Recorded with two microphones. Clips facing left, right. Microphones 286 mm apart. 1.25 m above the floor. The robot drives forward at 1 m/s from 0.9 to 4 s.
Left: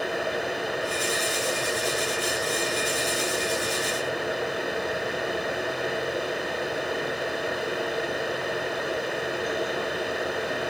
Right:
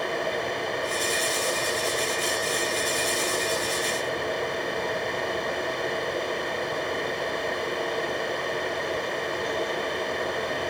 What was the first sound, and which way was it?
Only background noise.